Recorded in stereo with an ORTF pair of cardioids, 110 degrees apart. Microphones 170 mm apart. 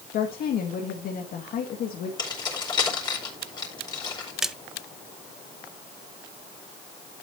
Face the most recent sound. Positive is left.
turn(degrees=0)